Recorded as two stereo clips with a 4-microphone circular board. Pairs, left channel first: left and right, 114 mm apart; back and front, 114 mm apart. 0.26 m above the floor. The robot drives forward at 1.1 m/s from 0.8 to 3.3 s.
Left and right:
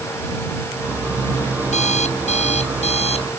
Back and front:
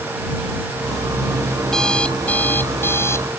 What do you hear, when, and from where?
1.6 s an alarm clock: 95° left; by 3.3 s 115° left